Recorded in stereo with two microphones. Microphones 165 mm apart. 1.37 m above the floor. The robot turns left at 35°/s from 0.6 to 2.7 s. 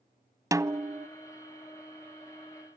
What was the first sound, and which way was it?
A snare drum, 20° right (ahead or behind).